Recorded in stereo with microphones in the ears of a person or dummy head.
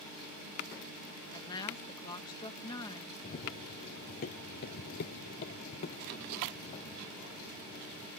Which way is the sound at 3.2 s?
40° left (ahead or behind).